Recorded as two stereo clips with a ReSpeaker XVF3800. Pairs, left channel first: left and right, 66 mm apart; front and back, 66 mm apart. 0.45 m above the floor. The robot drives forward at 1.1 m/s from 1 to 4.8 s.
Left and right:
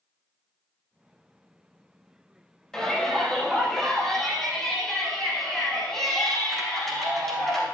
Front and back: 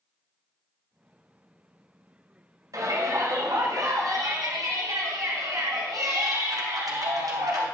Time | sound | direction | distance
2.7 | a shout | 170° left | 2.5 m